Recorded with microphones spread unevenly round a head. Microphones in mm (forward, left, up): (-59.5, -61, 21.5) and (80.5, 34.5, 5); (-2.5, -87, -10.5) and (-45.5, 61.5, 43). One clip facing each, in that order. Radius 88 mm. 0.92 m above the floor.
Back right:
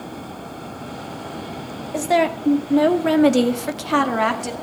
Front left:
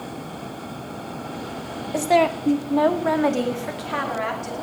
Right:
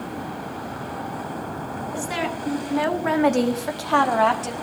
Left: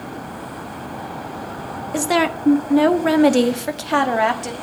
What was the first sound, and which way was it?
A woman speaking, 120° left.